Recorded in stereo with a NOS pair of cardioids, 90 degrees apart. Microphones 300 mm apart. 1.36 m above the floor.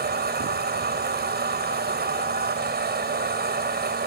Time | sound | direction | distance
0.0 | a machine running | 30° right | ?